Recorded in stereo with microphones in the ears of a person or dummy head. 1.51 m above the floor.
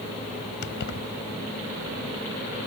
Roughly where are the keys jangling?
Left.